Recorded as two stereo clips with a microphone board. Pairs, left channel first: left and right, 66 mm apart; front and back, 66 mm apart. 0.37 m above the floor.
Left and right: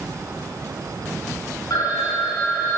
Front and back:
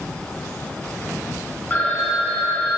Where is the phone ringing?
65° left, 1.8 m.